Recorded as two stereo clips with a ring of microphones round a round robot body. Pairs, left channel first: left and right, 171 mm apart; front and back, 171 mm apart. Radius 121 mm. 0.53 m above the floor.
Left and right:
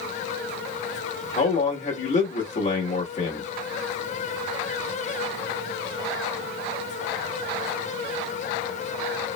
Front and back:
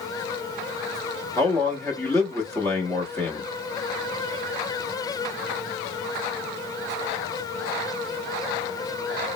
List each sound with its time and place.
1.4 s a man speaking: 70° left, 1.0 m